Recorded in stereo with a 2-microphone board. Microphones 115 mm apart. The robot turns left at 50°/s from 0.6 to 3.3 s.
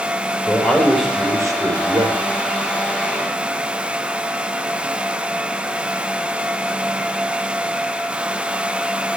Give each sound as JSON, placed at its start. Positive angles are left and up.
{"t": 0.5, "sound": "a man speaking", "azimuth_deg": 15, "distance_m": 3.5}